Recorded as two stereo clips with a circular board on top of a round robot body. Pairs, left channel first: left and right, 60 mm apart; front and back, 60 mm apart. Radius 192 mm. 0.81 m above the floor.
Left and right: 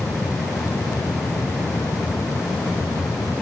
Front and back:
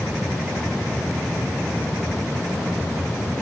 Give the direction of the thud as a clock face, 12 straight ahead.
I don't hear a thud.